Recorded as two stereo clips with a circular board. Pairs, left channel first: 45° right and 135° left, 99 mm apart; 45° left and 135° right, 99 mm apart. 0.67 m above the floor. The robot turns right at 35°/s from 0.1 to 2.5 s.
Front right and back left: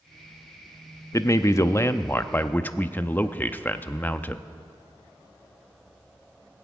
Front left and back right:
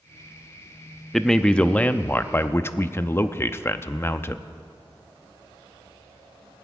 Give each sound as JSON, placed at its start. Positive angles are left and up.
{"t": 1.1, "sound": "a man speaking", "azimuth_deg": -40, "distance_m": 0.5}